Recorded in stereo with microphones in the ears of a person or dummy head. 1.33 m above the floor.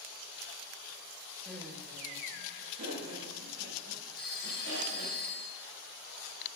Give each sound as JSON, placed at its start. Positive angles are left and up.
{"t": 1.4, "sound": "laughter", "side_deg": 5, "distance_m": 1.4}
{"t": 4.2, "sound": "a phone ringing", "side_deg": 0, "distance_m": 3.5}